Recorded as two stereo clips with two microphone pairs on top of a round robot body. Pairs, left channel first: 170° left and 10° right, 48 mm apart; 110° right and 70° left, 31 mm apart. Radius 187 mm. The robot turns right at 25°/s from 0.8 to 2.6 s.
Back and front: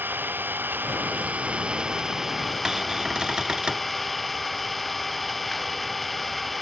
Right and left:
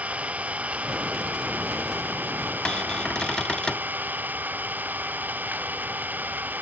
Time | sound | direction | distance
0.0 | an engine running | 35° left | ?
2.6 | a cupboard door | 65° right | ?